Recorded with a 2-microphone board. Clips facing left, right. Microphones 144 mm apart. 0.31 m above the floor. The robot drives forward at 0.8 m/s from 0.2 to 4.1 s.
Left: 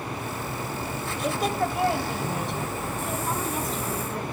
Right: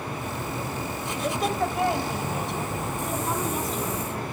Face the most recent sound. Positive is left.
turn(degrees=0)  # may be behind; listen again after turning